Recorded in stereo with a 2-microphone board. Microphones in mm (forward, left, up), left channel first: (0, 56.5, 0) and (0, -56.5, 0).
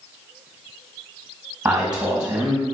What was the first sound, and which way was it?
A man speaking, 5° right (ahead or behind).